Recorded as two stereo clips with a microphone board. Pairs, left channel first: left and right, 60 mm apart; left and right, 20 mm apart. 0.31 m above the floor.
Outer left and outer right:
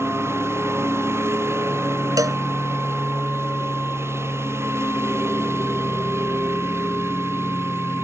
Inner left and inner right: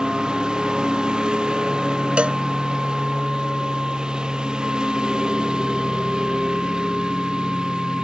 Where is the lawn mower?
45° right (ahead or behind).